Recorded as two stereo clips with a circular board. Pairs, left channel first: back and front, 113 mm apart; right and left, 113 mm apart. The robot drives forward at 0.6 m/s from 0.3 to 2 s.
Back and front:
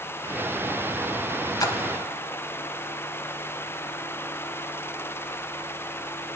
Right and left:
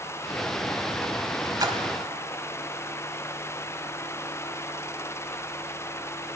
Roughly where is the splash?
Behind left.